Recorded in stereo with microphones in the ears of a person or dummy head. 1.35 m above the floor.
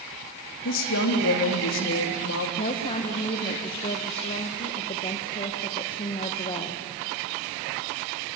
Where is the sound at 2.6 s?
25° left (ahead or behind), 1.3 m.